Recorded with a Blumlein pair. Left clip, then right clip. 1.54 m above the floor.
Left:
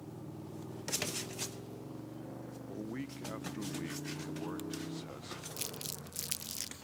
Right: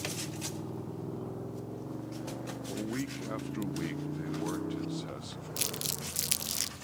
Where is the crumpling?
70° right.